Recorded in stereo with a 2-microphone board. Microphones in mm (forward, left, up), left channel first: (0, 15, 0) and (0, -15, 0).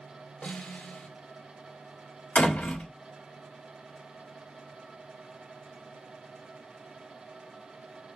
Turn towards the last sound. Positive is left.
turn(degrees=65)  # may be behind; listen again after turning